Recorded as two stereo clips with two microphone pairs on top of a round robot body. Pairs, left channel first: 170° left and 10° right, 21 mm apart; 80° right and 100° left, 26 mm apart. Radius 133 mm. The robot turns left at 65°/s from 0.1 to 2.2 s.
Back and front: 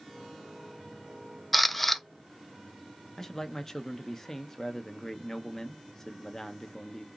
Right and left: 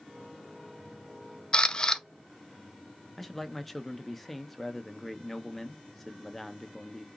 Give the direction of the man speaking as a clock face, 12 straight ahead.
6 o'clock.